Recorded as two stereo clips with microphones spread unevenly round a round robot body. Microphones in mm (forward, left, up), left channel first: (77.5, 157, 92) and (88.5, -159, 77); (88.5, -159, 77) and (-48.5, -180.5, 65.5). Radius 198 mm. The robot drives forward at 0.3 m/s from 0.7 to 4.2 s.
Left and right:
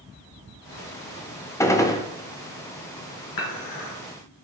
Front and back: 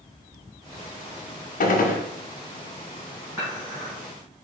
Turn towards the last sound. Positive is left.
turn(degrees=120)